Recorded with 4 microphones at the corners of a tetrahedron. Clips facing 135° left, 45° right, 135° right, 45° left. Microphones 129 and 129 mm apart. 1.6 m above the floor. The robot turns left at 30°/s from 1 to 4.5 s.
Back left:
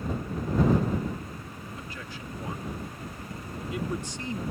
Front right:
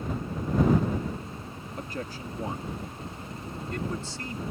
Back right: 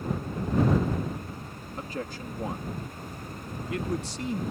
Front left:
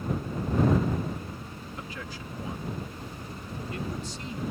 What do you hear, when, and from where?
1.8 s a man speaking: 85° right; by 4.4 s 160° right